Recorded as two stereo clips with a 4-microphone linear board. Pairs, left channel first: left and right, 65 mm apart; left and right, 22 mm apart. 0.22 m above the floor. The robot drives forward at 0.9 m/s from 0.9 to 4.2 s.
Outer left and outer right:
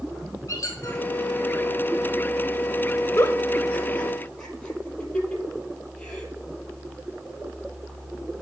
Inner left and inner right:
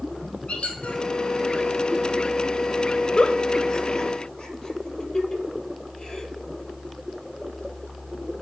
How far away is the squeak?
About 2.0 m.